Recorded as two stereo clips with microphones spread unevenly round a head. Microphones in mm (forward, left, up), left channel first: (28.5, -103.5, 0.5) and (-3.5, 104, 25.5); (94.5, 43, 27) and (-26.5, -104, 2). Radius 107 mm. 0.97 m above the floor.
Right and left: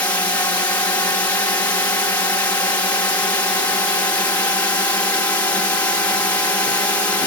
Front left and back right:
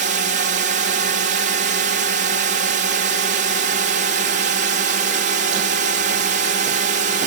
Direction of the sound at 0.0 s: 155° right.